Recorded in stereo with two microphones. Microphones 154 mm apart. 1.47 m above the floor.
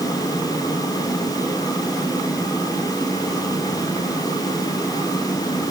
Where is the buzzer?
I don't hear a buzzer.